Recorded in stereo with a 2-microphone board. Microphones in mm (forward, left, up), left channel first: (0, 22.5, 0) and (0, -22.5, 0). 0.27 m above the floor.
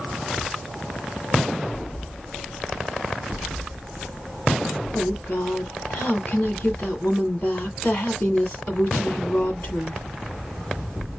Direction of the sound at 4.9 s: 45° left (ahead or behind).